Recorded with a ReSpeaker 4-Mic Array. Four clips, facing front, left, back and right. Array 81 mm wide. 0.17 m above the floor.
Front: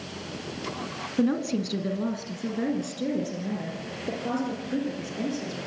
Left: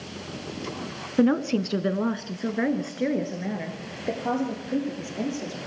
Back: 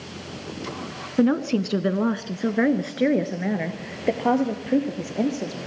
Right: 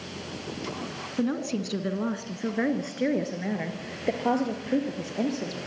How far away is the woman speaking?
About 1.4 m.